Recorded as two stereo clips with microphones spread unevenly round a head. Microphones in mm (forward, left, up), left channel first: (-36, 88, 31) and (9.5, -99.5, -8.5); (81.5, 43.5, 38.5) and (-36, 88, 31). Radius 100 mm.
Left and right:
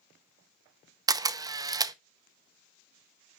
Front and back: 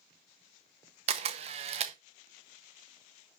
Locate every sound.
1.1 s a camera shutter: 145° right, 0.6 m